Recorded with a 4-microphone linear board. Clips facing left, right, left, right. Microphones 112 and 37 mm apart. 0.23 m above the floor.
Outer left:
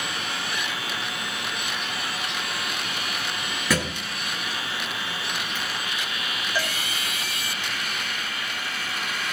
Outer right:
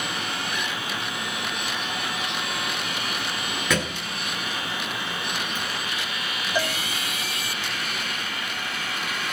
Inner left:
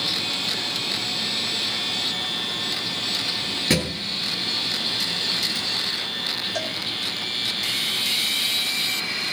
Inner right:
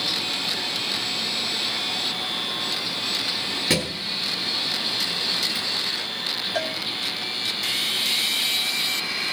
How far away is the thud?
About 1.4 m.